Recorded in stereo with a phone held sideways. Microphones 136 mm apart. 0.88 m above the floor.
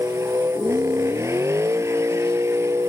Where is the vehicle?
20° right (ahead or behind).